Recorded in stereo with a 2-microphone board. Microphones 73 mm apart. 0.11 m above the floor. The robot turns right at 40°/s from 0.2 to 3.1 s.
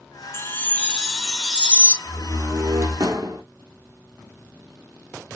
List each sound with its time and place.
0.3 s a chime: 145° left, 0.6 m; by 1.9 s 150° right, 0.6 m
2.0 s a door slam: 155° right, 2 m; by 3.4 s 115° right, 2 m